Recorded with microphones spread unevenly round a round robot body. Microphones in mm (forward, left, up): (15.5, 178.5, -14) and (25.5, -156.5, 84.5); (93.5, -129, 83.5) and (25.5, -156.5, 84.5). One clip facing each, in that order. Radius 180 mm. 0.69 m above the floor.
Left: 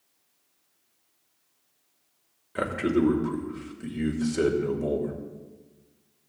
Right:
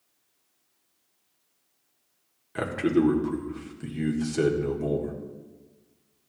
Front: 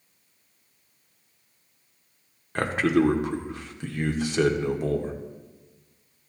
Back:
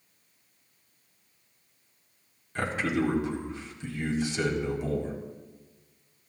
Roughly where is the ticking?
No ticking in this recording.